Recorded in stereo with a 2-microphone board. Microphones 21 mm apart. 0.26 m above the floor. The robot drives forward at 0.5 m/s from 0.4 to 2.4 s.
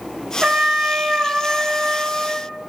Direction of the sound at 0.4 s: 55° right (ahead or behind).